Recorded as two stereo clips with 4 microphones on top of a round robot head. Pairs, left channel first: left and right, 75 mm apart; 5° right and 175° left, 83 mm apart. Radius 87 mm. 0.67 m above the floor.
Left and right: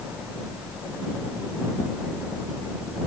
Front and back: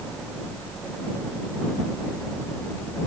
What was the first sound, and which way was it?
Only background noise.